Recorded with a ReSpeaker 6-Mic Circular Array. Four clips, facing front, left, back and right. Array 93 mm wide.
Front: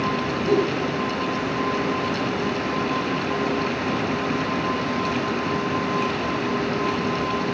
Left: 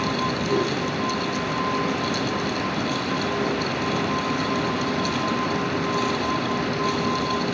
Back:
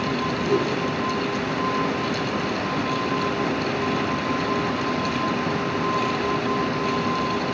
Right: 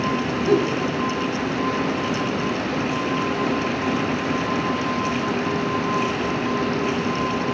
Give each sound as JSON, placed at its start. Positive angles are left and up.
{"t": 0.5, "sound": "a giggle", "azimuth_deg": -75, "distance_m": 5.5}